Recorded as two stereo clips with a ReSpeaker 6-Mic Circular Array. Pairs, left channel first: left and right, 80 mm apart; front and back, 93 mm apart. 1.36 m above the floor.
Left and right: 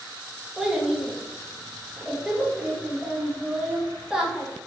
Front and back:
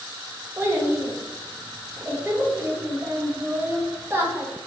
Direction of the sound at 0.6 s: 160° right.